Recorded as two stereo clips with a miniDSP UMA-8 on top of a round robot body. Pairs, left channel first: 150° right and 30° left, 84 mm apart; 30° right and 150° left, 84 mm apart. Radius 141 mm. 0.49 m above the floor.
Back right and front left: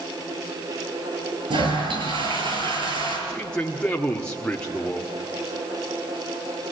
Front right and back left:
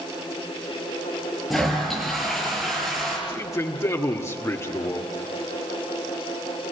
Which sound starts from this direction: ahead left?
A toilet flushing, at 1.5 s.